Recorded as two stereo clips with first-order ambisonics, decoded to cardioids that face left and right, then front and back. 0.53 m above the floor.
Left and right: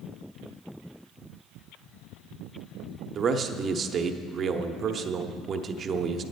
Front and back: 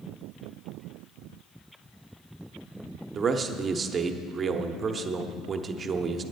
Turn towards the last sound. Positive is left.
turn(degrees=-125)